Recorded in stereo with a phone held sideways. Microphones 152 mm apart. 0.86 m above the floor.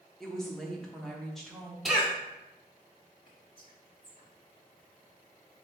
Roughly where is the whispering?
Left.